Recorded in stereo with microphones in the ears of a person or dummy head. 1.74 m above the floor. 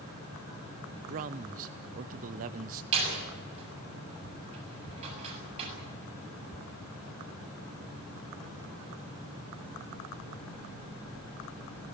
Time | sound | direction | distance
1.1 | a man speaking | 35° right (ahead or behind) | 0.6 m
2.9 | a door slam | 30° right (ahead or behind) | 7 m